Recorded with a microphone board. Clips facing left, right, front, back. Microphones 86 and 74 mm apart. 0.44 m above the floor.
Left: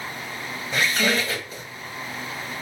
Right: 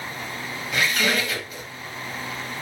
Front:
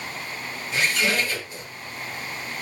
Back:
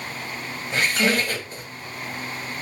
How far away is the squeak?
About 1.3 m.